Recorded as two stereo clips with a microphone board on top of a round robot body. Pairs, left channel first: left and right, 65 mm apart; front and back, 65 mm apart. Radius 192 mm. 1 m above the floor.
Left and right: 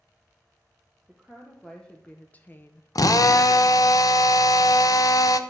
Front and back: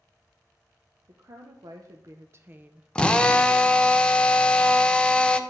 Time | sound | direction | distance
1.1 | a woman speaking | straight behind | 1.3 m
3.0 | a drill | 75° left | 0.7 m